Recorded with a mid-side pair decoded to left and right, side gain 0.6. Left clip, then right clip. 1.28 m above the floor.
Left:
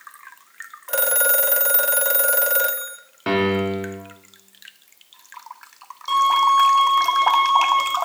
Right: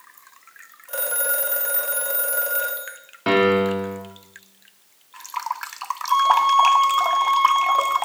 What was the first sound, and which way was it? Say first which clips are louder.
A phone ringing: left 5 dB; 40° left.